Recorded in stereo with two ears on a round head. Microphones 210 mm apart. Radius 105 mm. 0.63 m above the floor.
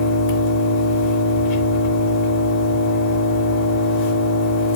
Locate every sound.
0.0 s an engine running: 50° left (ahead or behind), 0.8 m